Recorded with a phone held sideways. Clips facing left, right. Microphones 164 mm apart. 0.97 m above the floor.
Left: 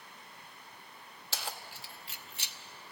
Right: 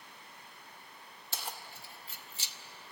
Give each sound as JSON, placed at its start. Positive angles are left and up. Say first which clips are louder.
{"t": 1.3, "sound": "keys jangling", "louder": "left 2 dB", "side_deg": 80, "distance_m": 1.2}